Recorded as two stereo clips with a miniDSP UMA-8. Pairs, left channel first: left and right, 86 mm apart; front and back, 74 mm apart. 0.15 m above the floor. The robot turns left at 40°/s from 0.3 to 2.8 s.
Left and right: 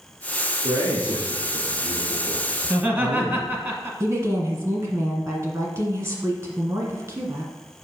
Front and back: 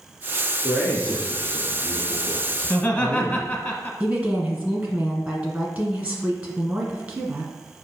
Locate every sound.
0.6 s a man speaking: 85° right, 2.5 m; by 3.5 s 170° right, 2.5 m
2.6 s laughter: 40° right, 1.1 m; by 3.9 s 45° right, 1.1 m
4.0 s a woman speaking: 125° right, 1.8 m